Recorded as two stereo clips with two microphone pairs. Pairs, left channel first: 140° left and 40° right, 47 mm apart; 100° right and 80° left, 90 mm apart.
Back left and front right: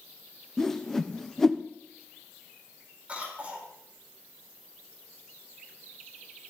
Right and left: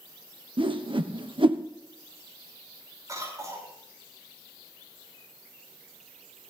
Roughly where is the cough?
Ahead left.